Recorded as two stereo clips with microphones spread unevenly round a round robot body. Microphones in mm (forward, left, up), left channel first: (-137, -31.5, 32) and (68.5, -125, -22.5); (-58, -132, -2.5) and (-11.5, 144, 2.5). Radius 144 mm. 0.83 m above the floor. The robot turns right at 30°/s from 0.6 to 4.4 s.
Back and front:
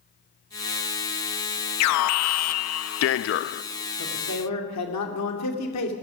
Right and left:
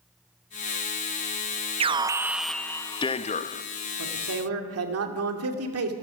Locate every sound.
1.8 s an alarm: 150° left, 0.5 m; by 3.6 s 155° right, 0.5 m
4.0 s a man speaking: 105° left, 2.5 m; by 5.9 s 115° left, 2.5 m